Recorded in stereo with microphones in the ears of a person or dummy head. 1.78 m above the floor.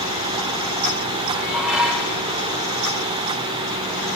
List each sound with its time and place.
1.3 s dishes clattering: centre (ahead or behind), 4 m